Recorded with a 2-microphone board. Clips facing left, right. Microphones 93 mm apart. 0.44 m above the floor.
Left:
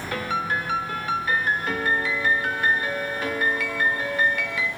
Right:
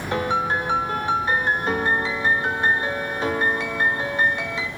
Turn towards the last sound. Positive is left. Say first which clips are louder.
# right 4 dB
turn(degrees=-25)  # may be behind; listen again after turning